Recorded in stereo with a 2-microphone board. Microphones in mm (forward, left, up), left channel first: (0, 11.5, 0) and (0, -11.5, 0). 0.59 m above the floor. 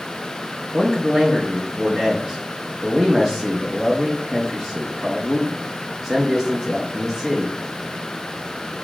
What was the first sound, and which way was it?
A man speaking, 10° right (ahead or behind).